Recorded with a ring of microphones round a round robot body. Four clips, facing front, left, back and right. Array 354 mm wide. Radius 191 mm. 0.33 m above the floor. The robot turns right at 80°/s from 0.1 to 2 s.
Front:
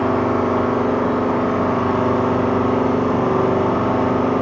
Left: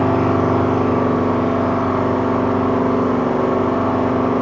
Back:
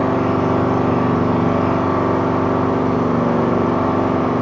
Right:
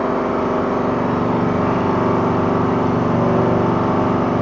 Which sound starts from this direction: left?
An engine running, at 0.0 s.